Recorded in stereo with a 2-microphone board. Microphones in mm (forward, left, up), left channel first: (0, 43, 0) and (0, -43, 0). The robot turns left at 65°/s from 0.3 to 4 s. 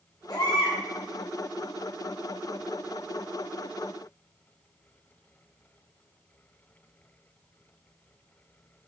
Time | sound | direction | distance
0.3 | a baby crying | 130° left | 2 m